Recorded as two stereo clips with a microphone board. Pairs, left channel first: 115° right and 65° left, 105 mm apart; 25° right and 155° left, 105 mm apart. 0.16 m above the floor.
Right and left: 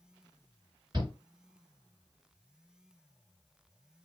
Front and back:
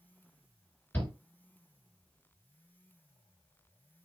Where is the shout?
45° left, 2.5 m.